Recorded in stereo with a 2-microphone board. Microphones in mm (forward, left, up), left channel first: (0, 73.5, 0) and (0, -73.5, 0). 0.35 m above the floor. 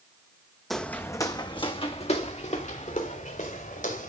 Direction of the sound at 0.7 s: Centre (ahead or behind).